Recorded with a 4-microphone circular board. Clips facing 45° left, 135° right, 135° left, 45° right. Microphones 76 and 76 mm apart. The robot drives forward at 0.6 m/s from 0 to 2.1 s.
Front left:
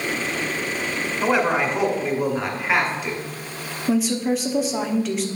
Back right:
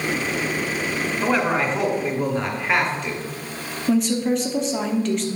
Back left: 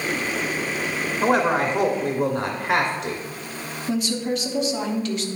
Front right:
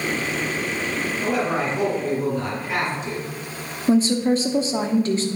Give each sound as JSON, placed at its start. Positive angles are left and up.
{"t": 1.2, "sound": "a man speaking", "azimuth_deg": 125, "distance_m": 2.0}
{"t": 3.9, "sound": "a woman speaking", "azimuth_deg": -40, "distance_m": 0.9}